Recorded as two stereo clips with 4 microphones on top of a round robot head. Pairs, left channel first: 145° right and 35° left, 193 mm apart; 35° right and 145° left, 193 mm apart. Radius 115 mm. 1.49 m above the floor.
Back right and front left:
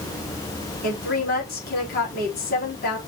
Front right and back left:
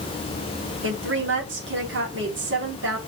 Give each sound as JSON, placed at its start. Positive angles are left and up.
{"t": 0.8, "sound": "a woman speaking", "azimuth_deg": 170, "distance_m": 4.0}